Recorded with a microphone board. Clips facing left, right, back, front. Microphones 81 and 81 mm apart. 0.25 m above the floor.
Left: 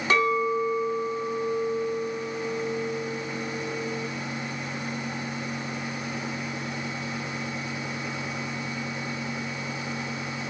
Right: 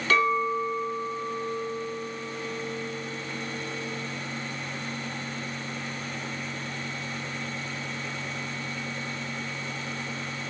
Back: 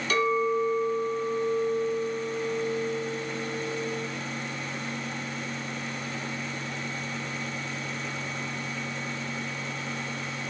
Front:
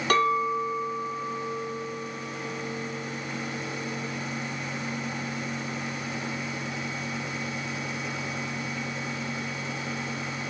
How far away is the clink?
About 1.1 m.